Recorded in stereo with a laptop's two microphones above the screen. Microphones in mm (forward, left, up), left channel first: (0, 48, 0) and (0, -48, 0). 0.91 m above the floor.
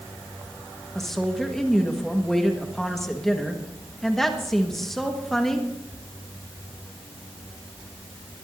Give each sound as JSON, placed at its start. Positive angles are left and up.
{"t": 0.9, "sound": "a woman speaking", "side_deg": 5, "distance_m": 1.3}